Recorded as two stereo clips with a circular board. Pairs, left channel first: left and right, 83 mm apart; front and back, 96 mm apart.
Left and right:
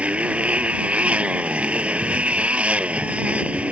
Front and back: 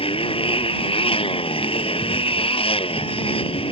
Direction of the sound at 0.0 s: 15° right.